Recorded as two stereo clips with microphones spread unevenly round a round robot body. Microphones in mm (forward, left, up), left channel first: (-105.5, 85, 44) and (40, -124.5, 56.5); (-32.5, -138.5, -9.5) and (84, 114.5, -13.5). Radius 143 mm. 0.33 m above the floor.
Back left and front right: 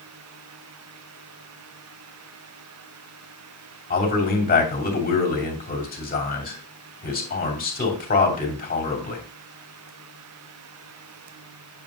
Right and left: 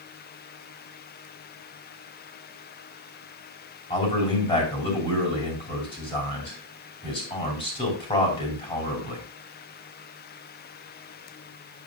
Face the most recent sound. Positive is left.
turn(degrees=175)